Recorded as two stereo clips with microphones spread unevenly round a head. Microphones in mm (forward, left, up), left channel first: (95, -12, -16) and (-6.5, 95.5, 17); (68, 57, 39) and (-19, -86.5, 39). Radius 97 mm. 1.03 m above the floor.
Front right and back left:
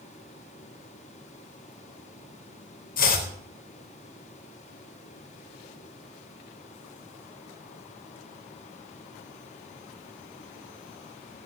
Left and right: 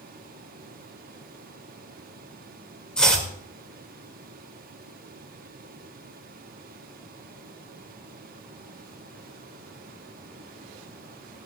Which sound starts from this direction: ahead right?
Chopping, at 3.0 s.